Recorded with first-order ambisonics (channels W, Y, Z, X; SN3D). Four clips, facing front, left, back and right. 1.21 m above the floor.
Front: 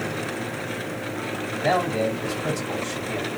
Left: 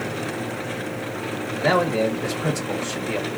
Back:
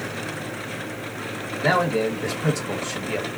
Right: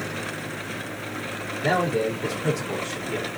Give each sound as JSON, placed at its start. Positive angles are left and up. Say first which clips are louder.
{"t": 1.6, "sound": "a man speaking", "louder": "left 3 dB, back 2 dB", "azimuth_deg": 135, "distance_m": 1.9}